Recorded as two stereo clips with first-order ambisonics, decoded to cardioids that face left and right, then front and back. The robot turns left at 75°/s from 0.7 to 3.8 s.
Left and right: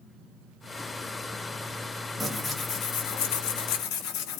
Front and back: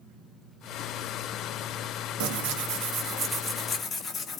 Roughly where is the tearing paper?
Behind.